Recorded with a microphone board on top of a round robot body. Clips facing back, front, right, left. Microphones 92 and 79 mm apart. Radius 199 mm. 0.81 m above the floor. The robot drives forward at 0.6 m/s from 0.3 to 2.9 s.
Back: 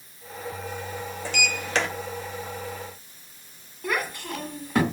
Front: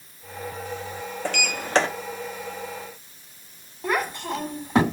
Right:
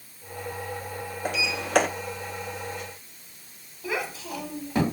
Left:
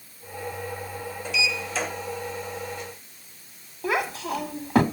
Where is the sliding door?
40° right, 0.8 m; by 1.9 s 65° right, 0.6 m.